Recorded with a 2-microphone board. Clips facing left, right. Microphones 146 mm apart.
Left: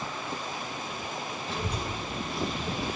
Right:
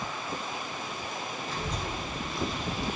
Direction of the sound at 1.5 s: 65° left (ahead or behind).